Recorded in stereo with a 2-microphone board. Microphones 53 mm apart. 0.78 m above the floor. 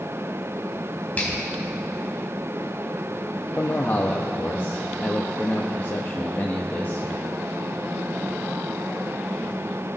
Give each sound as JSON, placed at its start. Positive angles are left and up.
{"t": 1.2, "sound": "a finger snap", "side_deg": 30, "distance_m": 4.0}
{"t": 3.6, "sound": "a man speaking", "side_deg": 35, "distance_m": 0.8}